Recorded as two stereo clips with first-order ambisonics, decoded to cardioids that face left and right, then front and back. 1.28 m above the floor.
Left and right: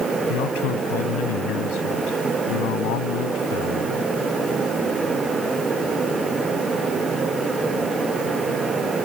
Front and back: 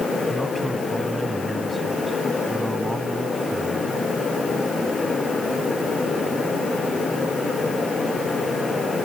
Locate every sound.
0.3 s a man speaking: 95° left